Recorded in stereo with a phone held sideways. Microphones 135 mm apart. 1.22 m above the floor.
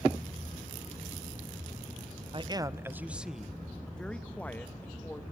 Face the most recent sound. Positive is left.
turn(degrees=15)  # may be behind; listen again after turning